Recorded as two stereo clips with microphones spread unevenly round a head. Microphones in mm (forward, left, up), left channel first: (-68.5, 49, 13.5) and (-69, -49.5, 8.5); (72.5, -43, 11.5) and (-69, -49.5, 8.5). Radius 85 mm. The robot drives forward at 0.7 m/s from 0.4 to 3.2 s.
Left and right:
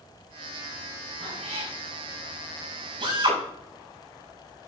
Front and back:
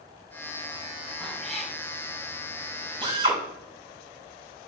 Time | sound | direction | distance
1.2 | a cat meowing | 85° right | 5 m
3.0 | a drill | 120° right | 6.5 m